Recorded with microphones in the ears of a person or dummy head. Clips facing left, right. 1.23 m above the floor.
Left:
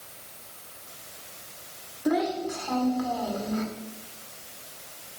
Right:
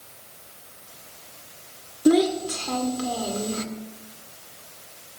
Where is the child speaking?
45° right (ahead or behind), 1.8 m.